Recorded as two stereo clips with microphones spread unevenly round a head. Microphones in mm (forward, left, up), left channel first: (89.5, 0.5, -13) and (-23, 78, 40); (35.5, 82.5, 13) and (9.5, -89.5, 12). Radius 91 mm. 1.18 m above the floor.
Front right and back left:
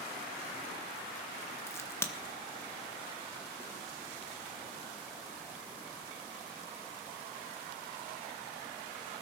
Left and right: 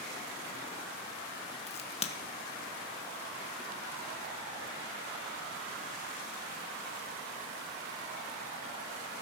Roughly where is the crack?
Ahead left.